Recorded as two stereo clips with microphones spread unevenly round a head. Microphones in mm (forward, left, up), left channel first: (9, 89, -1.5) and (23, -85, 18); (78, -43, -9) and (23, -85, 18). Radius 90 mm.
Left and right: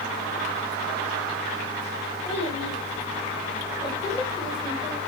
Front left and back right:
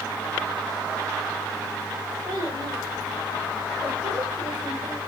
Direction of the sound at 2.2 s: 150° left.